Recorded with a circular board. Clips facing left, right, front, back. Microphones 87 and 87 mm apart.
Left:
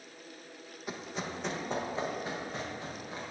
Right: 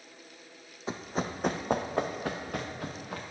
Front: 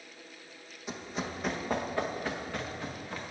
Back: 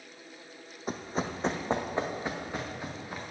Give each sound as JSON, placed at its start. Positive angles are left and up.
{"t": 0.9, "sound": "running footsteps", "azimuth_deg": -145, "distance_m": 0.7}